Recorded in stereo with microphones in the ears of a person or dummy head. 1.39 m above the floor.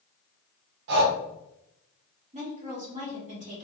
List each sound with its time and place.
0.9 s breathing: 65° right (ahead or behind), 0.7 m
2.3 s a woman speaking: 35° right (ahead or behind), 1.1 m